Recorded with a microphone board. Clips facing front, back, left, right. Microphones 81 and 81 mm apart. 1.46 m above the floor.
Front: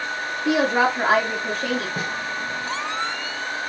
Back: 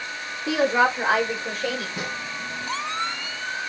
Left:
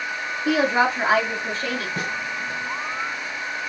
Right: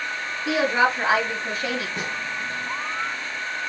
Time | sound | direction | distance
0.5 | a woman speaking | 25° left | 3 m
2.0 | a snare drum | 45° left | 3 m